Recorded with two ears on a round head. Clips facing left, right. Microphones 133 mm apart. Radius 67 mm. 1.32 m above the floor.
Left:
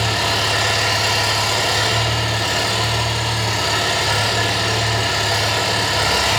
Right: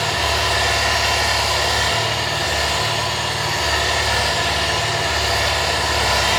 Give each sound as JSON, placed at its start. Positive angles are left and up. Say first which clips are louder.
{"t": 0.0, "sound": "an engine running", "louder": "even", "side_deg": 30, "distance_m": 1.4}